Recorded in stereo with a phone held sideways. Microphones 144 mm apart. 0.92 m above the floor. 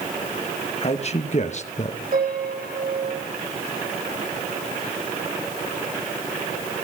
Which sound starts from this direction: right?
A piano, at 2.1 s.